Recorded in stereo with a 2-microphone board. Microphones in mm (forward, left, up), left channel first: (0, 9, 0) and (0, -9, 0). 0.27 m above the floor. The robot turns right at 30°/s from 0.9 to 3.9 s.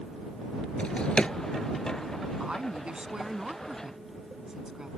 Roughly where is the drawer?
Left.